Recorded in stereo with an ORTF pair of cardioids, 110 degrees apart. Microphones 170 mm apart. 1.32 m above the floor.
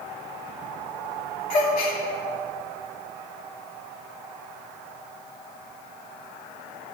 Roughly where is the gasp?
Left.